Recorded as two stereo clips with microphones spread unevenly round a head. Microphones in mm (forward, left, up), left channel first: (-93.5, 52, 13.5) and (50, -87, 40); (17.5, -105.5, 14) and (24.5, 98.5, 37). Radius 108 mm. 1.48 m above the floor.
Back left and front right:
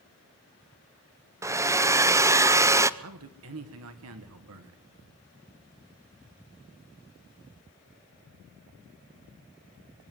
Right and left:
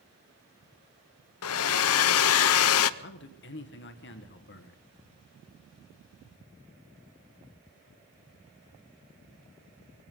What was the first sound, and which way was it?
A hair dryer, 120° right.